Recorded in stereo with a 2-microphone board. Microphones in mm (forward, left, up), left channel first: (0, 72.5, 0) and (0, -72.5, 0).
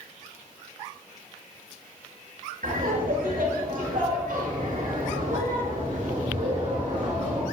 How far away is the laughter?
About 3 m.